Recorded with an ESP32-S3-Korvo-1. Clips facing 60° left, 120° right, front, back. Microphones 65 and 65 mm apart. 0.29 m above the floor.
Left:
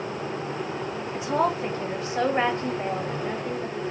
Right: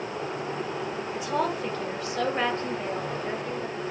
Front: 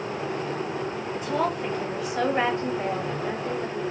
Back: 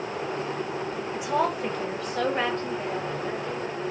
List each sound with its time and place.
1.1 s a woman speaking: 105° left, 1.3 m; by 3.8 s 15° right, 1.3 m